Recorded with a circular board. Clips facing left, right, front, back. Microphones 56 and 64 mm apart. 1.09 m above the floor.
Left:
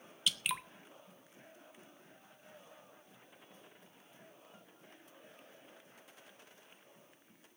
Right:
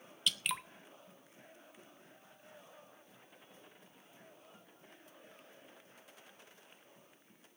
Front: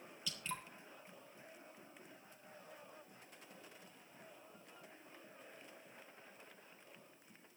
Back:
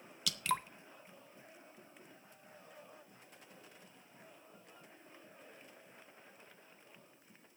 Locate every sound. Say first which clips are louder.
0.3 s dripping: even, back 10 dB; straight behind, 0.6 m